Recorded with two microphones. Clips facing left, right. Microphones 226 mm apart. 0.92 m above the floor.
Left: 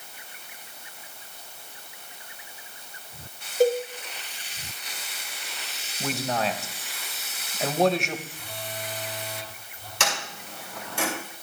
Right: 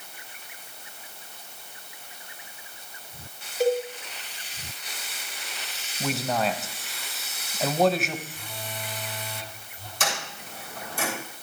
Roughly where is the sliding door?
Left.